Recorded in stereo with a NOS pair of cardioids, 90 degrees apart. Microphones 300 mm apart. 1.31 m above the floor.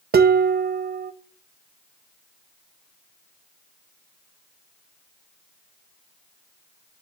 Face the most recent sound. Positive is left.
turn(degrees=-35)